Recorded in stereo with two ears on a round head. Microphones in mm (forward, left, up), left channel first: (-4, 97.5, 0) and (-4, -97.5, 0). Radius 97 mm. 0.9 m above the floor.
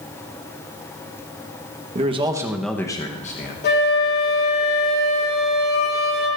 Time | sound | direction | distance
1.9 | a man speaking | 30° right (ahead or behind) | 1.2 m
3.6 | a flute | 50° left (ahead or behind) | 3 m